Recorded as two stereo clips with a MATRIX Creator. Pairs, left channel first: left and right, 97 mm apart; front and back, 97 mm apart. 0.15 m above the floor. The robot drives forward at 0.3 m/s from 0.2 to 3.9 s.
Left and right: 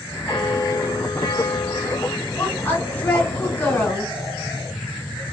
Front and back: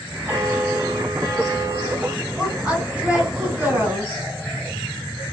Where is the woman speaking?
110° left, 1.6 m; by 4.1 s 140° left, 1.7 m.